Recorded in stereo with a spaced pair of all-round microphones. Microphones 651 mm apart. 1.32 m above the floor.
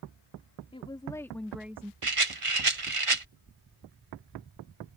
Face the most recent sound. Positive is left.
turn(degrees=-50)  # may be behind; listen again after turning